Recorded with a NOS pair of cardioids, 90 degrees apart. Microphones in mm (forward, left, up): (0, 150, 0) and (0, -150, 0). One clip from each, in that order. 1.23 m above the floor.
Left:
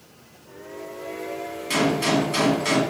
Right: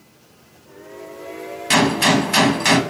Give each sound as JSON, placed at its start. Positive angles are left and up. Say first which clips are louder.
{"t": 1.7, "sound": "a gunshot", "louder": "right 6 dB", "azimuth_deg": -70, "distance_m": 1.4}